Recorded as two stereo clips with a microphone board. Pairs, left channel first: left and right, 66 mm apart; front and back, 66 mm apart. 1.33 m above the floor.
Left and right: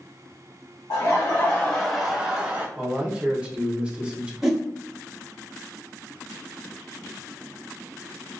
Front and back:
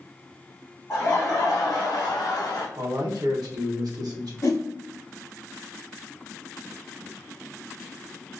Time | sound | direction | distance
0.9 | laughter | 50° left | 0.7 m
2.8 | a man speaking | 160° right | 0.8 m
4.4 | a whoosh | 5° right | 0.6 m